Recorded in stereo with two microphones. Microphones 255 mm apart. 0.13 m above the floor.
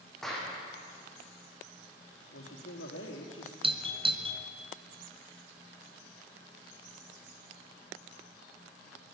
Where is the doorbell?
20° right (ahead or behind), 1.6 m.